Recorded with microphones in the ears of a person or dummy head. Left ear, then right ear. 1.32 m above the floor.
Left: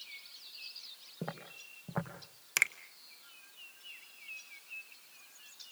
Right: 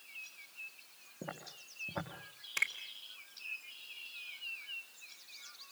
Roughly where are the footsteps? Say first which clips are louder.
Left 2 dB; left.